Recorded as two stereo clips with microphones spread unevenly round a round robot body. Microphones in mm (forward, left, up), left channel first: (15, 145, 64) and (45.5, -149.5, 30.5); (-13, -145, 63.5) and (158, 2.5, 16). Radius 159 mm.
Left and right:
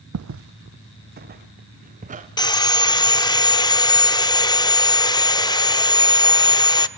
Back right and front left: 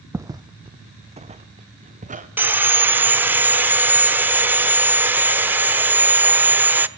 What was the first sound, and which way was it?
Footsteps, 40° right.